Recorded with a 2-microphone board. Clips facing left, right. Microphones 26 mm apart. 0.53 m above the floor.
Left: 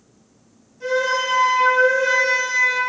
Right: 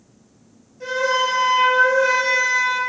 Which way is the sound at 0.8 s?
20° right (ahead or behind).